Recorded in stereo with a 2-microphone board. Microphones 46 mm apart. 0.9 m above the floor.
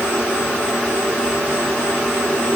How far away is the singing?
I don't hear singing.